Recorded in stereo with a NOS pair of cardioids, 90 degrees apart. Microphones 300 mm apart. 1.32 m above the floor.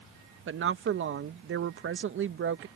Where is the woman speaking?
40° right.